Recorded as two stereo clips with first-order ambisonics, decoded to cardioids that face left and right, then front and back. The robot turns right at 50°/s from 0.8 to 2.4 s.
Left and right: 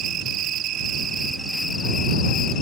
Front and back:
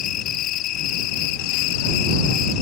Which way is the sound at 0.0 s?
40° right.